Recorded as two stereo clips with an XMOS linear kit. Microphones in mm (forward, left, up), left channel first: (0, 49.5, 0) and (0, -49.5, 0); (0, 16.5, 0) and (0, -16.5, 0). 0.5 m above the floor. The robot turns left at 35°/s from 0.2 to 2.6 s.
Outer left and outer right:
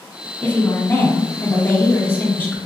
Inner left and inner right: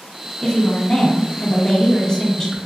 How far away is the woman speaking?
About 0.8 m.